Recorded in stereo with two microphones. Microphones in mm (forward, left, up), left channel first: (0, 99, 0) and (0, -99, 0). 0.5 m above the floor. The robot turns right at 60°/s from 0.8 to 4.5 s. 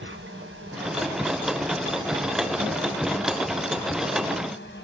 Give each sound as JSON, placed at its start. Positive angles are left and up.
{"t": 0.0, "sound": "an insect", "azimuth_deg": -110, "distance_m": 1.0}